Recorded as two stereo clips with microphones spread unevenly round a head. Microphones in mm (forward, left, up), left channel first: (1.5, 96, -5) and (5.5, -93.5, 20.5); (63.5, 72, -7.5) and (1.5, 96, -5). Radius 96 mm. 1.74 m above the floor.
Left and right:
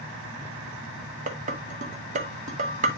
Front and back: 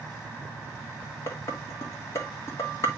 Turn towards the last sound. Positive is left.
turn(degrees=-65)